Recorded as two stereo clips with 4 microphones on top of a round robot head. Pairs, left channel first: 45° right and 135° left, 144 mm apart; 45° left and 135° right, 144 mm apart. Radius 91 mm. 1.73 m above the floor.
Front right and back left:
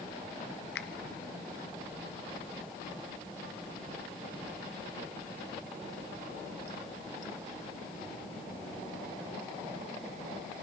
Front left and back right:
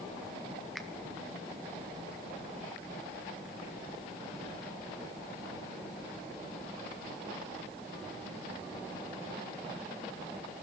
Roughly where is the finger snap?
Ahead right.